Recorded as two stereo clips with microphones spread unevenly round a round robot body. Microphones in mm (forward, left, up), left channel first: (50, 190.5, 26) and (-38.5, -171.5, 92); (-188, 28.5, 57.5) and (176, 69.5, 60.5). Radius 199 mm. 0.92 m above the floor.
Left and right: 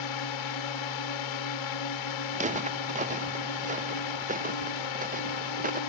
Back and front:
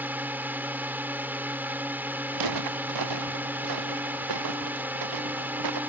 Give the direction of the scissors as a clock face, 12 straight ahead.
I don't hear scissors.